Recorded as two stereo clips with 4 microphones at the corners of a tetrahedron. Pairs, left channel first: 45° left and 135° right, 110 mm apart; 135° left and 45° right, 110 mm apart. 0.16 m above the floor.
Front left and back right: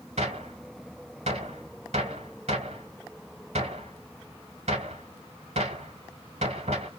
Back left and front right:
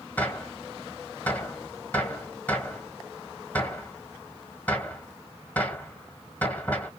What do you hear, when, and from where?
0.2 s a gunshot: 150° right, 1.4 m